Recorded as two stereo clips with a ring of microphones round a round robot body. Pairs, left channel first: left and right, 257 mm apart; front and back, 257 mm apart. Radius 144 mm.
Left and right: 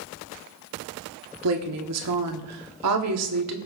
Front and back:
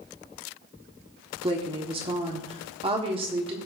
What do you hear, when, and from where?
1.4 s a woman speaking: 110° right, 1.5 m